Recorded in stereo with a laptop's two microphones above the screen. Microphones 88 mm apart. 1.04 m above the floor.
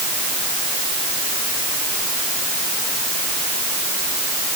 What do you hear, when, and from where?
Only background noise.